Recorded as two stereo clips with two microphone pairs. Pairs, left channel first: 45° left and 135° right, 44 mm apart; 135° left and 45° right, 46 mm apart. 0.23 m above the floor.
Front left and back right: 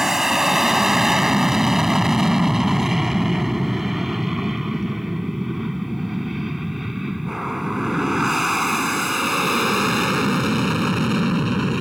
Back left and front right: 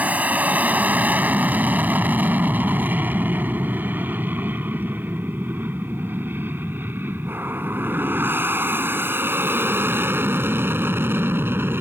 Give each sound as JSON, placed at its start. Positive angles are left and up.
{"t": 0.0, "sound": "an aircraft", "azimuth_deg": -60}